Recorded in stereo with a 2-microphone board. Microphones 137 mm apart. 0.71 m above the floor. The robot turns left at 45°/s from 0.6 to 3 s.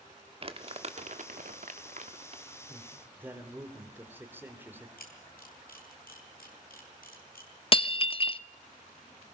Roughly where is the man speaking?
Right.